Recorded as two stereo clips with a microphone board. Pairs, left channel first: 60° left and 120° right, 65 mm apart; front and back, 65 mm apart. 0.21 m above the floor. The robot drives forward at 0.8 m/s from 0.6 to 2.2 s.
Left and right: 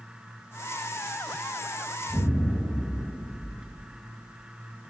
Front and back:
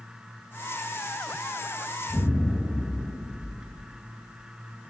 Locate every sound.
2.1 s an explosion: 105° right, 3 m